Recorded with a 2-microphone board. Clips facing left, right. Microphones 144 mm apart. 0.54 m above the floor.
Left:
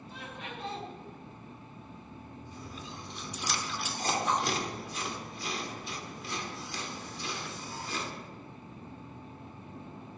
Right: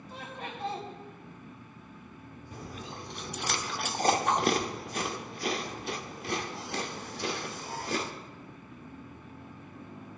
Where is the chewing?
55° right (ahead or behind), 0.8 m.